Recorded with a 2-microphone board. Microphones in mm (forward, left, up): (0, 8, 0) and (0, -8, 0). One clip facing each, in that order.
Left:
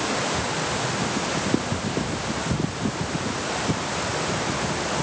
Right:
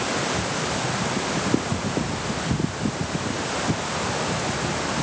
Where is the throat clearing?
No throat clearing in this recording.